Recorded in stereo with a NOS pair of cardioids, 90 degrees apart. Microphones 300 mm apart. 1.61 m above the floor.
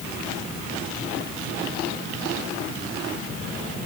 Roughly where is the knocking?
No knocking in this recording.